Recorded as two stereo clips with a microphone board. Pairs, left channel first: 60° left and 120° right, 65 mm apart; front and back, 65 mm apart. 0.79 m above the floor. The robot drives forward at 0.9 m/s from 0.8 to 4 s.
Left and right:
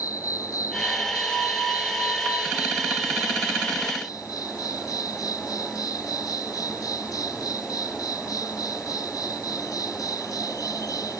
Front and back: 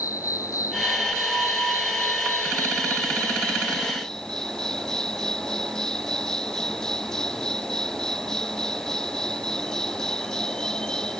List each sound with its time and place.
0.0 s an insect: 30° left; by 11.2 s 80° left